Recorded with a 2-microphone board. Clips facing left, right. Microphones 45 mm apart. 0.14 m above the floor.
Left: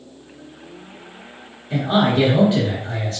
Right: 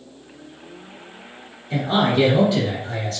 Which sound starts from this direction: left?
A man speaking, at 1.7 s.